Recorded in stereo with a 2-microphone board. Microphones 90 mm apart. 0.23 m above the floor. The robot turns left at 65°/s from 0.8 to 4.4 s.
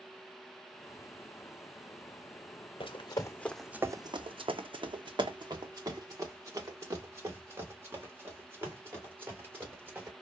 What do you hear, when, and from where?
2.8 s running footsteps: 75° left (ahead or behind), 0.9 m; by 10.1 s 25° right (ahead or behind), 3.5 m